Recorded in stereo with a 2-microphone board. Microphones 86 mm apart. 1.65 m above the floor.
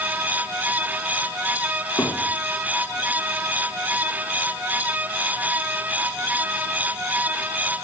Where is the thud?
25° left (ahead or behind), 6 m.